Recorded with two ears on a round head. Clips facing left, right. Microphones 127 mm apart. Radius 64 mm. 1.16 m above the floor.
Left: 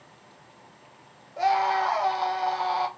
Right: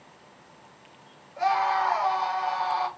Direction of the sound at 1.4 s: 35° left (ahead or behind).